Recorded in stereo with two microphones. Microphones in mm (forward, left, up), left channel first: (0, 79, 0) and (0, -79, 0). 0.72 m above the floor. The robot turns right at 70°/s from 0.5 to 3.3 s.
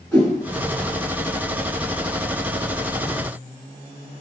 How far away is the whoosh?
About 4.5 m.